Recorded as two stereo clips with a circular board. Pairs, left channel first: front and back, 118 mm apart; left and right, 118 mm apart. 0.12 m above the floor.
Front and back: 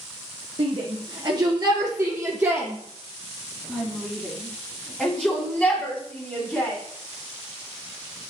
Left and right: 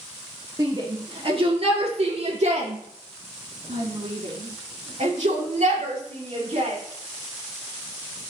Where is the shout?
145° right, 2.5 m; by 6.8 s 70° right, 6.5 m.